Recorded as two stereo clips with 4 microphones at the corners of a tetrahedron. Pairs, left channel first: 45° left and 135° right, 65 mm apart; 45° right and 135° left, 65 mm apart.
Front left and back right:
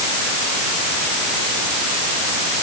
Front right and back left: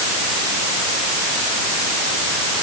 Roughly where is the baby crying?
No baby crying in this recording.